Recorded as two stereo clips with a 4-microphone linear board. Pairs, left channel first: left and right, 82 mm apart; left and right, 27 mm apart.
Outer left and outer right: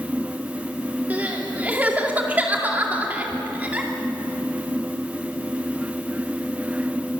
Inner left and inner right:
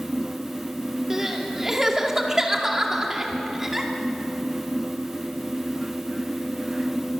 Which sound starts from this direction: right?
Crying, at 1.1 s.